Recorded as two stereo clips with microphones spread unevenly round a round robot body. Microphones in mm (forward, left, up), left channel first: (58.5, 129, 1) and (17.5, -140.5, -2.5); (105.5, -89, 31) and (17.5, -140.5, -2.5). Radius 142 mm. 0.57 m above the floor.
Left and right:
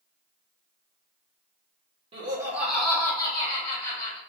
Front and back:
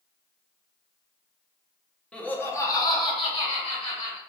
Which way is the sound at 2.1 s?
80° right.